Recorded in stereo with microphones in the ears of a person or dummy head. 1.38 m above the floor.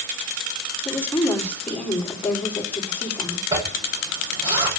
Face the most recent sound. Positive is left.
turn(degrees=-25)  # may be behind; listen again after turning